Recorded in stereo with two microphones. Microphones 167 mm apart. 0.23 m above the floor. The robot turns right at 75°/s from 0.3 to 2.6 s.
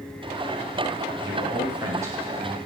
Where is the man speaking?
20° right (ahead or behind), 1.4 m; by 2.6 s 5° right (ahead or behind), 1.4 m.